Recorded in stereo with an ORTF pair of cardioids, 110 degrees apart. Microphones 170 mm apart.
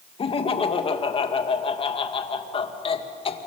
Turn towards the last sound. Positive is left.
turn(degrees=35)